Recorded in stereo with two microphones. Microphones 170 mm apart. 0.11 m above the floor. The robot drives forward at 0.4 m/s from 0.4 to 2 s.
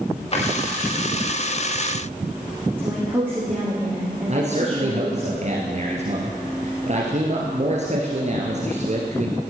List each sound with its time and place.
0.3 s a drawer: 35° left (ahead or behind), 6.5 m
2.8 s a woman speaking: 10° right (ahead or behind), 4.5 m
4.3 s a man speaking: 45° right (ahead or behind), 2 m